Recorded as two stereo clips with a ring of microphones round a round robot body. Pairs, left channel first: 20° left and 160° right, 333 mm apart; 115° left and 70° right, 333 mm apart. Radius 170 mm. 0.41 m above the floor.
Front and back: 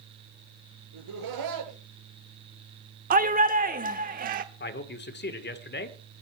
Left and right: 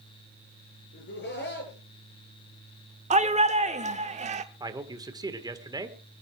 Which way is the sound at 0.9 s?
175° left.